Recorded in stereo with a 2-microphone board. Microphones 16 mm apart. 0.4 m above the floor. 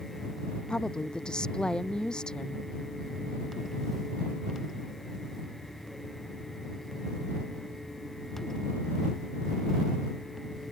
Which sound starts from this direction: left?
A woman speaking, at 0.7 s.